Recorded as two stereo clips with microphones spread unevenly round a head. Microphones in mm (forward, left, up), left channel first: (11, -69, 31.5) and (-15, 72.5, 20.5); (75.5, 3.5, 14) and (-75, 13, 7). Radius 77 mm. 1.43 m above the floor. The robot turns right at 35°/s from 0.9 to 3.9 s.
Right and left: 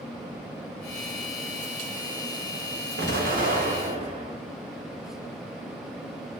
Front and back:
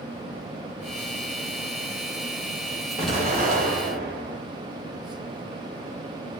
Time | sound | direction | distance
3.0 | an explosion | 120° left | 0.7 m